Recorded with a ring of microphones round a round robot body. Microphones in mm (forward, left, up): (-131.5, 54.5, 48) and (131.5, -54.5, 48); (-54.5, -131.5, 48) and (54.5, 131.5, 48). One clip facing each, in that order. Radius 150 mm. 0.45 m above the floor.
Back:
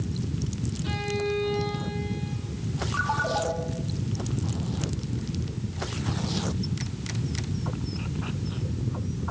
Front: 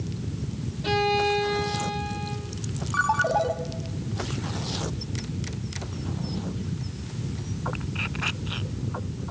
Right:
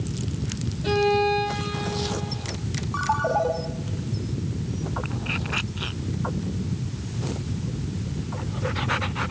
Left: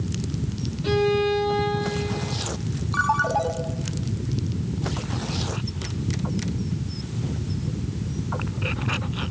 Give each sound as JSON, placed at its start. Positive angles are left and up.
{"t": 0.8, "sound": "a violin", "azimuth_deg": -15, "distance_m": 4.0}
{"t": 2.9, "sound": "a ringtone", "azimuth_deg": 10, "distance_m": 2.5}